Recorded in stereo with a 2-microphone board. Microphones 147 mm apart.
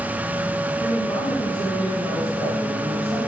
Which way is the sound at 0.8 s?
45° left (ahead or behind).